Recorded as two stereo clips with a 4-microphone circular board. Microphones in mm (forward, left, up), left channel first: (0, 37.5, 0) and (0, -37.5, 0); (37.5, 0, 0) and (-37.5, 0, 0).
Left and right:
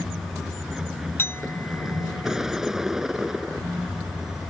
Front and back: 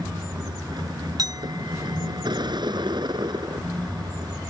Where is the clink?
150° left.